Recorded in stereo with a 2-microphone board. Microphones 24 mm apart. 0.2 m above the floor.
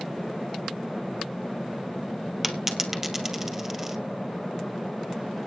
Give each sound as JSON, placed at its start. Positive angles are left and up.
{"t": 2.4, "sound": "a dropped coin", "side_deg": -15, "distance_m": 1.6}